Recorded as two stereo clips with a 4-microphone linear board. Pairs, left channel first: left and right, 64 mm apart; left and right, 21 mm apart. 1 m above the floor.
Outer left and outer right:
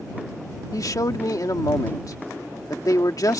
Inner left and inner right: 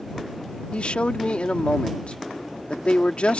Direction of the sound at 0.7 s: 70° left (ahead or behind).